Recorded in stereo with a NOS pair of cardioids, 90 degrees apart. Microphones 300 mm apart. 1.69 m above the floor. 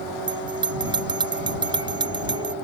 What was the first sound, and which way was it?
A bell, 15° right.